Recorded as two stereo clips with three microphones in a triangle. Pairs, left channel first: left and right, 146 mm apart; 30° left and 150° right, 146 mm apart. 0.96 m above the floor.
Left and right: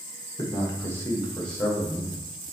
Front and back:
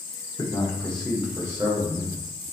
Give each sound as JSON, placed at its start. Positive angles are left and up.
{"t": 0.4, "sound": "a man speaking", "azimuth_deg": 55, "distance_m": 0.9}